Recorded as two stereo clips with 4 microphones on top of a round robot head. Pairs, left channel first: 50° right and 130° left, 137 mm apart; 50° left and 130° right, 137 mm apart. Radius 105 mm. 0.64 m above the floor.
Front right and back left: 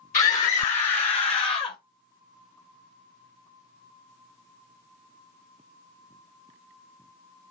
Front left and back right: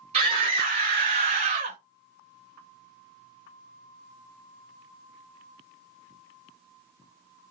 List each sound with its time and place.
0.1 s a scream: 85° right, 1.9 m; by 1.8 s 100° right, 0.9 m